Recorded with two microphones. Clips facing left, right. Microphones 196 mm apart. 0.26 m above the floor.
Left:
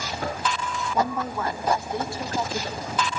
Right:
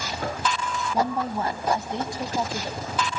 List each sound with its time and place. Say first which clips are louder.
0.9 s a woman speaking: right 1 dB; 35° right (ahead or behind), 2.5 m; by 3.2 s 5° left (ahead or behind), 1.7 m